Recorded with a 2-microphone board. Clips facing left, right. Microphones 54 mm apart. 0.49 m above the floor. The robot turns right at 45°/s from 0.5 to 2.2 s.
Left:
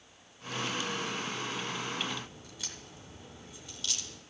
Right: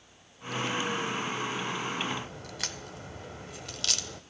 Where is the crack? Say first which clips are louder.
Right 5 dB; 65° right (ahead or behind), 0.8 m.